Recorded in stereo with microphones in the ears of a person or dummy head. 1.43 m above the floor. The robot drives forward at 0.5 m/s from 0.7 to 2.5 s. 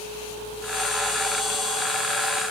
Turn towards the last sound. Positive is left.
No sound to turn to.